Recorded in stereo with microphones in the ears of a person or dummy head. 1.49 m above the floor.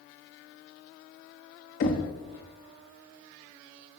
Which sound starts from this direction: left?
Knocking, at 1.8 s.